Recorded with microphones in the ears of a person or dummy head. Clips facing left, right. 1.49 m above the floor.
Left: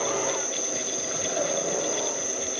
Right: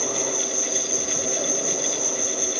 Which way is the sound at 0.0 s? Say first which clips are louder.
Even; 60° right (ahead or behind).